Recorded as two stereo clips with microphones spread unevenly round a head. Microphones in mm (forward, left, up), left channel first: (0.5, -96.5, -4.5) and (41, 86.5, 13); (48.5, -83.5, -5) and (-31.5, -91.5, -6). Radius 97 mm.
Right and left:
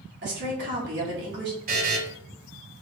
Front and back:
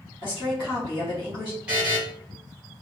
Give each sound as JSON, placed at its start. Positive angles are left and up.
{"t": 0.2, "sound": "a woman speaking", "azimuth_deg": 50, "distance_m": 1.6}
{"t": 1.7, "sound": "a buzzer", "azimuth_deg": 110, "distance_m": 1.1}